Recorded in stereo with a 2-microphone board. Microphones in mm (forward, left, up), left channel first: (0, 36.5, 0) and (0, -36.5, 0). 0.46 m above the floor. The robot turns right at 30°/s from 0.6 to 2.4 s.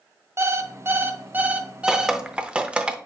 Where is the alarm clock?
60° right, 0.6 m; by 2.2 s 15° right, 0.6 m.